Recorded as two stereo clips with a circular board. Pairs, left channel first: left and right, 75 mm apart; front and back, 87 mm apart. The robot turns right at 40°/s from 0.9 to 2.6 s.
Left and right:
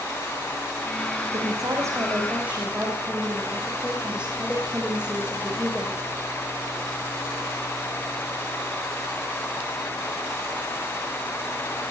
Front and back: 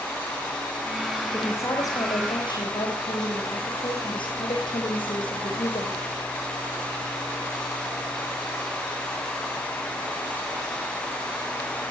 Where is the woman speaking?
65° right, 6.5 m; by 6.0 s 15° right, 6.5 m.